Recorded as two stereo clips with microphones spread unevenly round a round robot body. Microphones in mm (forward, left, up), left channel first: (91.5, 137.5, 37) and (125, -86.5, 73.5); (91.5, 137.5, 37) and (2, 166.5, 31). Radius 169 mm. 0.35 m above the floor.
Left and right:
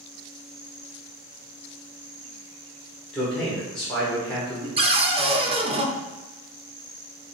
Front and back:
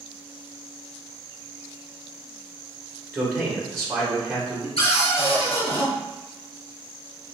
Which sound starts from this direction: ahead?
A cupboard door, at 4.8 s.